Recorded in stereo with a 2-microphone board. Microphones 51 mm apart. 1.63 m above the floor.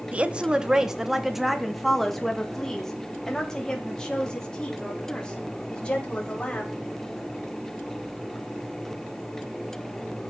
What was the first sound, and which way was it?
A woman speaking, 25° right (ahead or behind).